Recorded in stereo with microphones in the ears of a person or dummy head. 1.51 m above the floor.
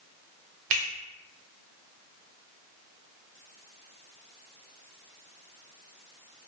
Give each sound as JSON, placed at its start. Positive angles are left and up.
{"t": 0.7, "sound": "a finger snap", "side_deg": -45, "distance_m": 0.6}